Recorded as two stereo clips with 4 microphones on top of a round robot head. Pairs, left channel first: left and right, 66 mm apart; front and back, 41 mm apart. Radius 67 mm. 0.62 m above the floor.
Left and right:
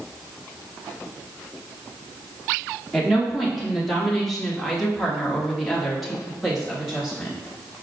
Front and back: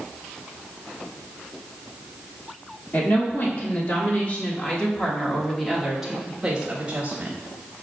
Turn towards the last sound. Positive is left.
turn(degrees=180)